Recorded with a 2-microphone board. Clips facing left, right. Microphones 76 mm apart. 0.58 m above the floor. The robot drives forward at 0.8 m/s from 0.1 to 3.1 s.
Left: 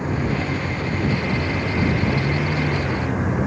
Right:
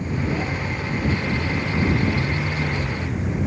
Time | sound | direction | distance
0.0 | a vehicle | 80° left | ?